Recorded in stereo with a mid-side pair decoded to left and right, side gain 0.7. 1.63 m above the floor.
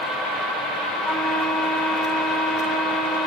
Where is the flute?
25° left, 4 m.